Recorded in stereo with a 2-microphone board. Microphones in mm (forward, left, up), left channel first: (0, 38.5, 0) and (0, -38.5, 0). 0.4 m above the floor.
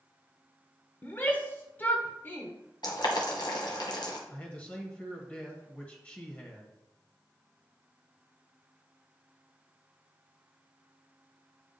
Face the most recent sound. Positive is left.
turn(degrees=15)  # may be behind; listen again after turning